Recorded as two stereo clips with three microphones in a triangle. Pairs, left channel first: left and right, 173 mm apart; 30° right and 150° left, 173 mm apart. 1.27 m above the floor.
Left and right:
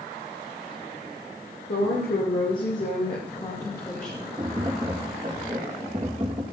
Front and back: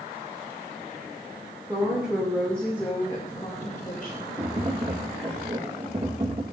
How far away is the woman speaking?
About 2.5 m.